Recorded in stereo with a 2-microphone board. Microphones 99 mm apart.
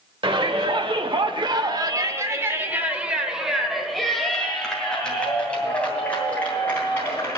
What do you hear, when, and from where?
0.2 s a shout: 55° right (ahead or behind), 1.4 m; by 7.4 s 15° left (ahead or behind), 4 m